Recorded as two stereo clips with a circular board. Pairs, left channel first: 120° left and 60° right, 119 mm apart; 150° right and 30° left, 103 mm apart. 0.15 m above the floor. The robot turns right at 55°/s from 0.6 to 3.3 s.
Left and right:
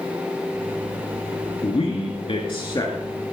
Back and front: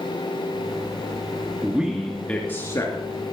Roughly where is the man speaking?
Left.